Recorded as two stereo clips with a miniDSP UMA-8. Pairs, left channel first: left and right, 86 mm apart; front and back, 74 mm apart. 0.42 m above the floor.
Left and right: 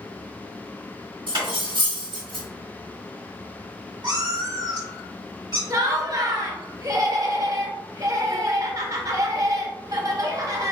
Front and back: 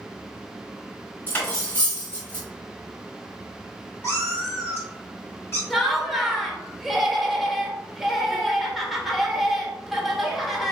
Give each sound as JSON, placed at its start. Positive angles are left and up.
{"t": 1.3, "sound": "cutlery clinking", "azimuth_deg": -65, "distance_m": 1.4}
{"t": 4.0, "sound": "a cat meowing", "azimuth_deg": -55, "distance_m": 1.7}
{"t": 5.7, "sound": "laughter", "azimuth_deg": -95, "distance_m": 0.9}